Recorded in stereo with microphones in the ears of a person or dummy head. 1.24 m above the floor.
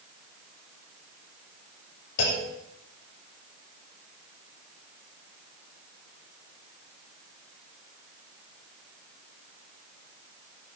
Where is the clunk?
75° left (ahead or behind), 7 m.